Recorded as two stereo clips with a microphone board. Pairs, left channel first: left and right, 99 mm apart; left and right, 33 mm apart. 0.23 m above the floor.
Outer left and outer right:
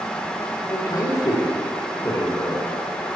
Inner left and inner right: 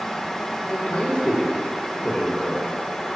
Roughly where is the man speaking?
Left.